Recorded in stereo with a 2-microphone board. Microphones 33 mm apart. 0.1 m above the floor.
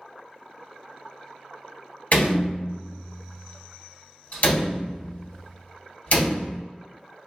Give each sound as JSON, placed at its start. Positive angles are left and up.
{"t": 2.1, "sound": "a door slam", "side_deg": 45, "distance_m": 1.6}